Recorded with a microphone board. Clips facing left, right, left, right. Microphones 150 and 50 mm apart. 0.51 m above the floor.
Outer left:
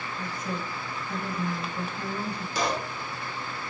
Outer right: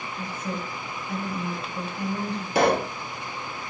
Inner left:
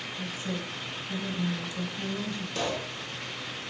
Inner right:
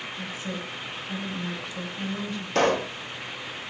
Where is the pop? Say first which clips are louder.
Outer right 9 dB, inner right 11 dB; 55° right (ahead or behind), 0.6 m.